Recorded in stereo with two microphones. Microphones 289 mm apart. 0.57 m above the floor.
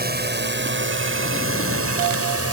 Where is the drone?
35° right (ahead or behind); by 2.5 s 60° right (ahead or behind).